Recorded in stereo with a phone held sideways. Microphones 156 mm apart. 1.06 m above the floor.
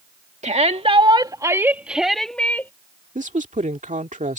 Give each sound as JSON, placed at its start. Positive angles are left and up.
{"t": 0.4, "sound": "a shout", "side_deg": -45}
{"t": 3.1, "sound": "a woman speaking", "side_deg": -55}